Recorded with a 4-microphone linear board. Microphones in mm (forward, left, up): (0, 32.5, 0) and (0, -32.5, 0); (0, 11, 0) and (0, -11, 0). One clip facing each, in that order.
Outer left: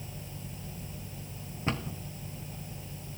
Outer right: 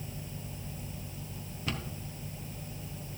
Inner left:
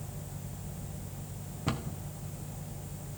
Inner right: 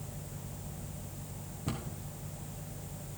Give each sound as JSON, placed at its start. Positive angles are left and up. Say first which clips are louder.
{"t": 1.7, "sound": "a cupboard door", "louder": "outer left 4 dB, inner left 4 dB", "side_deg": 30, "distance_m": 1.0}